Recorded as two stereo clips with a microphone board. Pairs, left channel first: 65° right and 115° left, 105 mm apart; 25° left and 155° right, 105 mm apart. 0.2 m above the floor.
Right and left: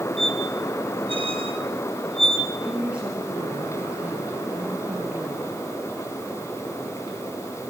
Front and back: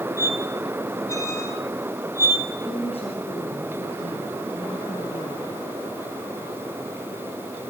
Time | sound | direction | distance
0.2 | a squeak | 85° left | 3 m
2.6 | a woman speaking | 30° left | 4 m